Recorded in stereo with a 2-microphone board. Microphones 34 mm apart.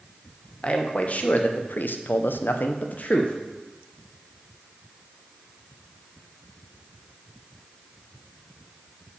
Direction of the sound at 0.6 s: 40° left (ahead or behind).